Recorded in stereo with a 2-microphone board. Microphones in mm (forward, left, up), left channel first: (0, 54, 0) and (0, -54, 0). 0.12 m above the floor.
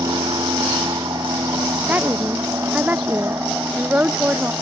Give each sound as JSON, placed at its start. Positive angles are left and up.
{"t": 0.0, "sound": "an aircraft", "side_deg": -45}
{"t": 1.9, "sound": "a woman speaking", "side_deg": -15}